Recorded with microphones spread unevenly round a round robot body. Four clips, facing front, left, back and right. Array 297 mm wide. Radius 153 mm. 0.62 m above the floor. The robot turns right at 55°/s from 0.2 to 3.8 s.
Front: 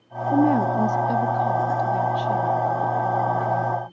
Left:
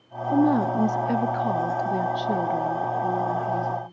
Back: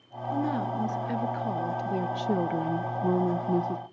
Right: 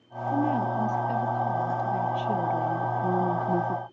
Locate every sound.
0.3 s a woman speaking: 30° left, 0.8 m; by 3.8 s 135° right, 0.8 m